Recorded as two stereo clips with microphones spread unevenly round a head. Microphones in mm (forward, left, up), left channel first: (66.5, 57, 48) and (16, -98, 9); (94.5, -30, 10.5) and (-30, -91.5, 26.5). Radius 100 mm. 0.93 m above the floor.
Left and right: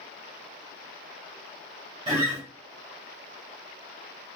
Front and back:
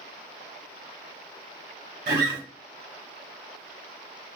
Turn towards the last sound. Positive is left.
turn(degrees=-165)